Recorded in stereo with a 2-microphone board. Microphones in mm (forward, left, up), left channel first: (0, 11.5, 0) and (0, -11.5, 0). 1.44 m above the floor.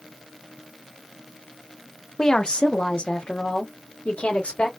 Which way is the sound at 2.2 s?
25° left (ahead or behind).